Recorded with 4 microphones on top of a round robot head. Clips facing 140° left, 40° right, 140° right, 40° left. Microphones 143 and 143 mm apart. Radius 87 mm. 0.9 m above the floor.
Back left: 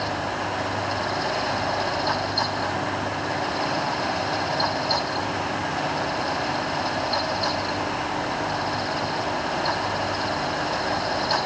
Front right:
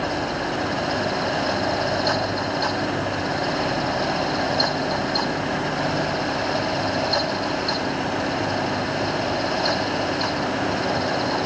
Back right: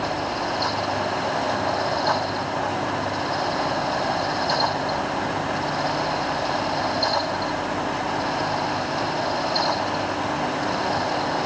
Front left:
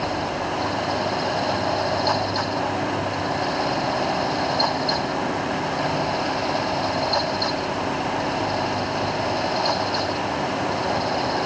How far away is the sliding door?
No sliding door in this recording.